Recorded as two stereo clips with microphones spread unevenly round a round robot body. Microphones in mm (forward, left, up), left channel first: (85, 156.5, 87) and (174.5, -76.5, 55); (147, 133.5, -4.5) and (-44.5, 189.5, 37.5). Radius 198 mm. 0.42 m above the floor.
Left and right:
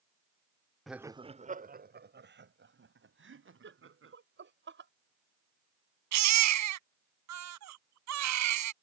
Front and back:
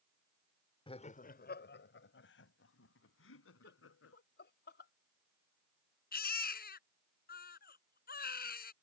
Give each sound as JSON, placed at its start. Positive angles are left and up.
{"t": 0.9, "sound": "laughter", "azimuth_deg": 10}
{"t": 3.6, "sound": "laughter", "azimuth_deg": -40}
{"t": 6.1, "sound": "a baby crying", "azimuth_deg": -80}